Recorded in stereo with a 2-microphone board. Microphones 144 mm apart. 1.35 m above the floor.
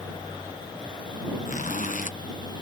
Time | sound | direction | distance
1.4 | a zipper | 65° left (ahead or behind) | ?